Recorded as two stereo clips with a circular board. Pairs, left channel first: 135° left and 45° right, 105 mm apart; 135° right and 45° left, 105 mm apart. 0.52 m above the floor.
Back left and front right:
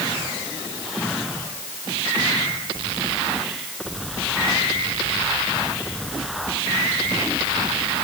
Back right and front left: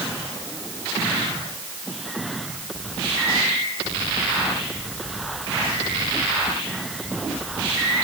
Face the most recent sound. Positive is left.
No sound to turn to.